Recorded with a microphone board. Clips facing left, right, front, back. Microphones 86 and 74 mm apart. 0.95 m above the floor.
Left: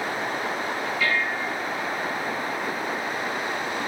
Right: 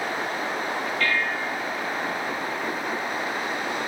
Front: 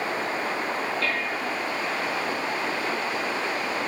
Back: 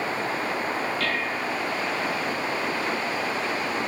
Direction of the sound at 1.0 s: 170° left.